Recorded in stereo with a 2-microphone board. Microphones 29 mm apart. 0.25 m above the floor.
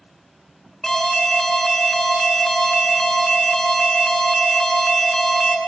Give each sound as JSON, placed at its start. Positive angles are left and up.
{"t": 0.8, "sound": "an alarm", "side_deg": 25, "distance_m": 1.8}